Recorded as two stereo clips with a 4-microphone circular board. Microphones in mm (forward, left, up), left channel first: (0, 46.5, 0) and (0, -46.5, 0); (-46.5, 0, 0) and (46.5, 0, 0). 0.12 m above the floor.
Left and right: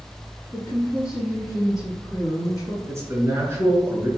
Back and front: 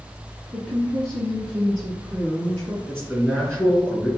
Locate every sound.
0.5 s a woman speaking: 100° left, 1.7 m
2.9 s a man speaking: 105° right, 1.4 m